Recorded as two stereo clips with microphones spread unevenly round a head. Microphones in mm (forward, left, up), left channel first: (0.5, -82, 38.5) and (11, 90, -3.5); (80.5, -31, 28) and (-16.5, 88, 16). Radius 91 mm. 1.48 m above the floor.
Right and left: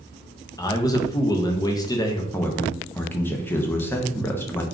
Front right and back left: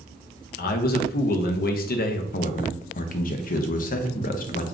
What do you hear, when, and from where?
0.6 s a man speaking: 25° right, 0.6 m
2.3 s a man speaking: 15° right, 0.6 m